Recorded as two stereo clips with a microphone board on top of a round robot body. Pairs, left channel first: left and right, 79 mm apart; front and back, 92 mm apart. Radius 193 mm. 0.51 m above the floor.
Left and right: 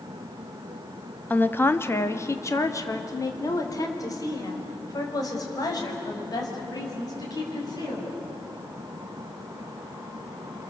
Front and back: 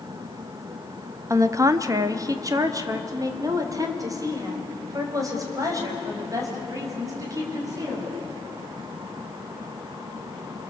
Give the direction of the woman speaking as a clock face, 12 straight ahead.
7 o'clock.